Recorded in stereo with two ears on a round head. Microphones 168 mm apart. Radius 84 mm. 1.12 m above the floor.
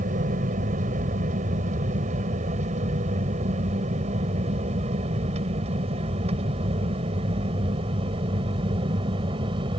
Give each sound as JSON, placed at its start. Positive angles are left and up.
{"t": 0.0, "sound": "an aircraft", "side_deg": -40}